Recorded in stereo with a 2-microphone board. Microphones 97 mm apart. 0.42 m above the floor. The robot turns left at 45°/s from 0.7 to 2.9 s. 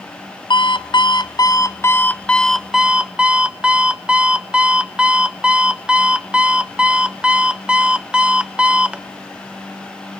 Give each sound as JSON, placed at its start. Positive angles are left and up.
{"t": 0.5, "sound": "an alarm clock", "azimuth_deg": 85, "distance_m": 0.5}